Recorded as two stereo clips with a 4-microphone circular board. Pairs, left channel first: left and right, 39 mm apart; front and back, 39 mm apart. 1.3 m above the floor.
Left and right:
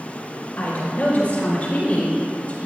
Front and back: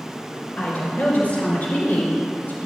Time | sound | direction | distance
0.6 | a woman speaking | 40° left | 4 m